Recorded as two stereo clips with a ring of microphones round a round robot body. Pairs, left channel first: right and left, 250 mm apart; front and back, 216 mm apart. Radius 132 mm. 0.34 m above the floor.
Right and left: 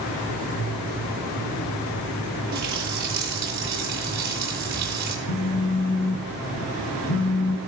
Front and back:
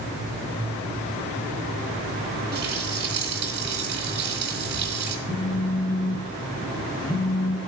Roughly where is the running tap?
Behind left.